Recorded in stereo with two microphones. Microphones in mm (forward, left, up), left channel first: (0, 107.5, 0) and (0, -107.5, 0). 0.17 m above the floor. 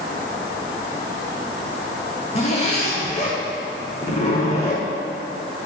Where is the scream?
I don't hear a scream.